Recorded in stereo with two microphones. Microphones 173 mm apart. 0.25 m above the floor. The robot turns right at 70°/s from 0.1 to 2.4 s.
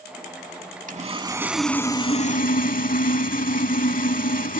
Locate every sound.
0.9 s sawing: 50° right, 0.5 m; by 4.6 s 55° left, 0.5 m